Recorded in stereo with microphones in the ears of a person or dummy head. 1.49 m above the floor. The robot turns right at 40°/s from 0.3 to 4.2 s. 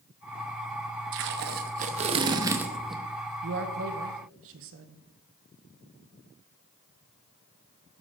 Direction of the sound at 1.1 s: 75° right.